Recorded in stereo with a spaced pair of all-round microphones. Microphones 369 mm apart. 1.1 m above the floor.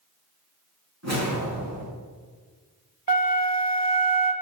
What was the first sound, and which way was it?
A whoosh, 45° right (ahead or behind).